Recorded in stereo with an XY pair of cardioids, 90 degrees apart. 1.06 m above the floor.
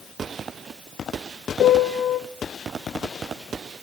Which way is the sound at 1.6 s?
65° left.